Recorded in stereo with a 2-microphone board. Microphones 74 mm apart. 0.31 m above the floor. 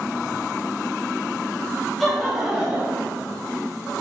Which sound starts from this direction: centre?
Laughter, at 2.0 s.